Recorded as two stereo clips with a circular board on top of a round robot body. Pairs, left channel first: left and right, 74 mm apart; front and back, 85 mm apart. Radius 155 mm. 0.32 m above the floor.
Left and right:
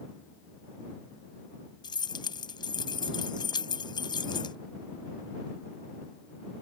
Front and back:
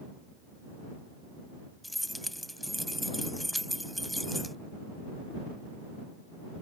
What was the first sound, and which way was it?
Keys jangling, 90° left.